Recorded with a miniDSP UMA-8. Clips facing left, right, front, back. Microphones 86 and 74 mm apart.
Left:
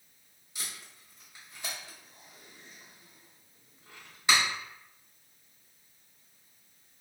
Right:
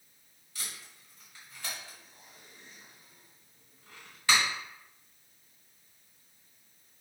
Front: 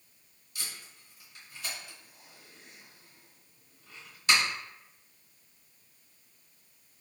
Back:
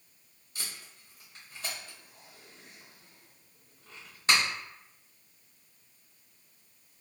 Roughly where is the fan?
I don't hear a fan.